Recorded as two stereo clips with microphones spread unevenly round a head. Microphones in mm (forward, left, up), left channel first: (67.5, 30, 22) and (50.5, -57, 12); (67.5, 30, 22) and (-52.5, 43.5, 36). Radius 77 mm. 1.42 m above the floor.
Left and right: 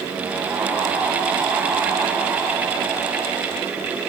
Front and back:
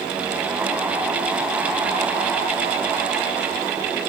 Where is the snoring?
I don't hear snoring.